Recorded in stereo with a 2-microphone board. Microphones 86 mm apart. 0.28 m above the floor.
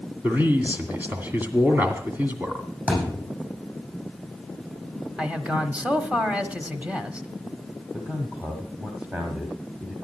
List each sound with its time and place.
0.2 s a man speaking: 20° right (ahead or behind), 2.5 m
2.9 s a thud: 15° right (ahead or behind), 6.5 m
5.2 s a man speaking: 15° right (ahead or behind), 1.3 m
7.9 s a man speaking: 15° right (ahead or behind), 1.5 m